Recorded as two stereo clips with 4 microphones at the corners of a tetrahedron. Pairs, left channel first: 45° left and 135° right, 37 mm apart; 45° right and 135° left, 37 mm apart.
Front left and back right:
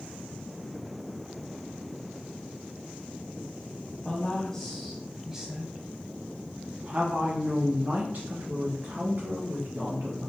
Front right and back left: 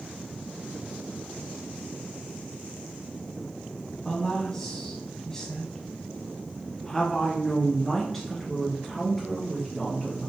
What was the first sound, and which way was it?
A woman speaking, 15° left.